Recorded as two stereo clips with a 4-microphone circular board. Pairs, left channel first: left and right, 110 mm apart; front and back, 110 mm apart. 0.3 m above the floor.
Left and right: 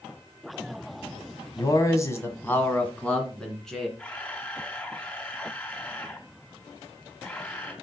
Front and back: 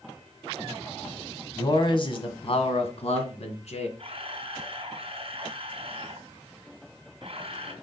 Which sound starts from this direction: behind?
A camera shutter, at 4.0 s.